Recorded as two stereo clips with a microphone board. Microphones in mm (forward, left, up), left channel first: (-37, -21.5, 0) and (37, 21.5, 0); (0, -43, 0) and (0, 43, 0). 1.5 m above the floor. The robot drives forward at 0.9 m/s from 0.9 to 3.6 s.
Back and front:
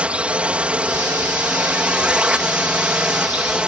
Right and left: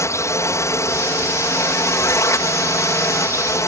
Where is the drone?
45° right.